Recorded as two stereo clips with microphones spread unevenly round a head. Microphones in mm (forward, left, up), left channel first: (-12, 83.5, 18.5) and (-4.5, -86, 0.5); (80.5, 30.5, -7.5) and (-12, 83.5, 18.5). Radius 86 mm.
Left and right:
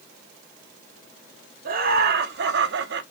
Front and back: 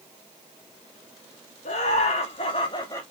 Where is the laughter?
50° right, 1.6 m; by 3.0 s 95° right, 0.9 m.